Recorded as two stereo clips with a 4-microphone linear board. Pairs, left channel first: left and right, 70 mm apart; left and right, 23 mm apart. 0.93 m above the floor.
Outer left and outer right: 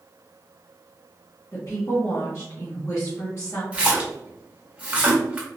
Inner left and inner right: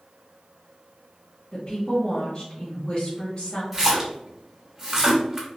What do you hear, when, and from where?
1.5 s a woman speaking: 40° left (ahead or behind), 1.0 m
3.7 s a splash: 20° right (ahead or behind), 0.8 m